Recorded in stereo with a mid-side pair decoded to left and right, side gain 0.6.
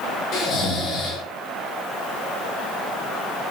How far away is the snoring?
About 2.5 m.